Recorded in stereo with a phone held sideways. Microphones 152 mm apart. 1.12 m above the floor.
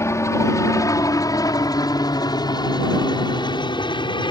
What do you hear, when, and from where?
0.0 s a helicopter: 20° left (ahead or behind); by 4.3 s 30° left (ahead or behind)